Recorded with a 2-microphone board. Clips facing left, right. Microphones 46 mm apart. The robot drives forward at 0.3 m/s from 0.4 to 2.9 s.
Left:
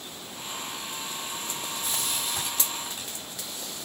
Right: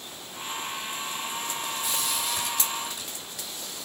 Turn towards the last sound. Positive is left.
turn(degrees=40)  # may be behind; listen again after turning